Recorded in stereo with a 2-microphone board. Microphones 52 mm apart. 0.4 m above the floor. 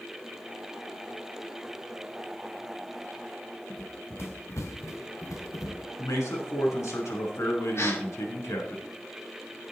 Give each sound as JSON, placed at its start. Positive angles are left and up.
{"t": 3.7, "sound": "running footsteps", "side_deg": 45, "distance_m": 1.9}
{"t": 6.0, "sound": "a man speaking", "side_deg": 70, "distance_m": 4.5}
{"t": 7.8, "sound": "a gasp", "side_deg": 55, "distance_m": 3.0}